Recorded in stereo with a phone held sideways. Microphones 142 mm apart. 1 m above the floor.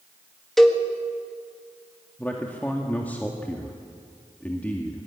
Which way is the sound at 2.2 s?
15° left (ahead or behind).